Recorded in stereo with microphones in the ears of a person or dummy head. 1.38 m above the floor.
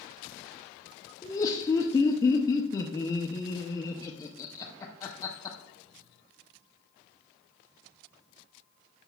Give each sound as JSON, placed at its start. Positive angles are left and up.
{"t": 1.2, "sound": "laughter", "side_deg": 15, "distance_m": 0.6}